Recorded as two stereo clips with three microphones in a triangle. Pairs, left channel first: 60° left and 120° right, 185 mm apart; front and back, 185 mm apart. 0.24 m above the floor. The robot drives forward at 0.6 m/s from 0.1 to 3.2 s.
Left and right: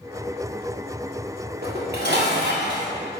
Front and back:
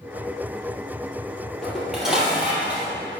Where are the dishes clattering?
90° right, 4 m; by 2.9 s 100° right, 4 m.